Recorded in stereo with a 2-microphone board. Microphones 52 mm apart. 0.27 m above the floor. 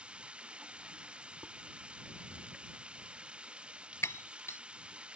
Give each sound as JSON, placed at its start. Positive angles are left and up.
{"t": 0.0, "sound": "running water", "side_deg": -20}
{"t": 1.4, "sound": "dishes clattering", "side_deg": -55}
{"t": 4.0, "sound": "breaking glass", "side_deg": 60}